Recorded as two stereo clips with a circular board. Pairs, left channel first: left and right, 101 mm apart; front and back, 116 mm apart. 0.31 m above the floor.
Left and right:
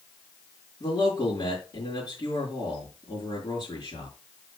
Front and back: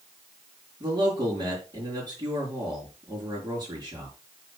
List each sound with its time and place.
0.8 s a man speaking: 135° left, 4 m